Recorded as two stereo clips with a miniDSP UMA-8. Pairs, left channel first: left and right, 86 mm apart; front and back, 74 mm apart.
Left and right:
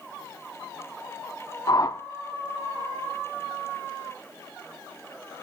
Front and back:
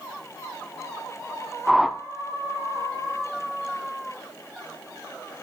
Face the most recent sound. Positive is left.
turn(degrees=95)